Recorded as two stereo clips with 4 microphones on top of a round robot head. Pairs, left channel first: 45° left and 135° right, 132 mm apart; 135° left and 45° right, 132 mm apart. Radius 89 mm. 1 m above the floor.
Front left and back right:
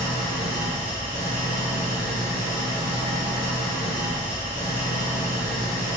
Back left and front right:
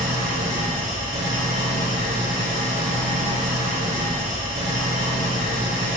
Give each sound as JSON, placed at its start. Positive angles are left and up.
{"t": 0.0, "sound": "an engine running", "azimuth_deg": -15, "distance_m": 4.0}